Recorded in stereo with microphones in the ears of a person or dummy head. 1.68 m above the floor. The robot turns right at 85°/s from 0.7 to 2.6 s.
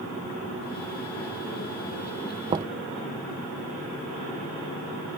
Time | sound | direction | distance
2.5 | knocking | 30° right (ahead or behind) | ?